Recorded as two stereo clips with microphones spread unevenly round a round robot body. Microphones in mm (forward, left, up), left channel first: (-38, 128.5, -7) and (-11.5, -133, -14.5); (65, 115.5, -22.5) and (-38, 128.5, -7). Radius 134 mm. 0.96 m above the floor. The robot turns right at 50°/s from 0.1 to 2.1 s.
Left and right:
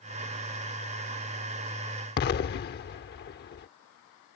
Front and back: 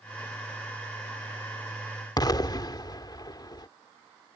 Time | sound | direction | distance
2.2 | an explosion | 45° left | ?